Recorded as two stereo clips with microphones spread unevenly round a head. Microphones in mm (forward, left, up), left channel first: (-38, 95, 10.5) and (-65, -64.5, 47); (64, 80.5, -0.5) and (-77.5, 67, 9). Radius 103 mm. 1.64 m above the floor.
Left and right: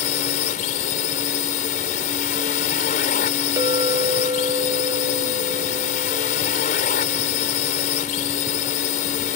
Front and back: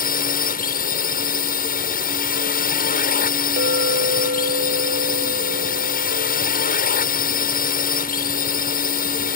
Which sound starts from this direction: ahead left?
A drone, at 0.0 s.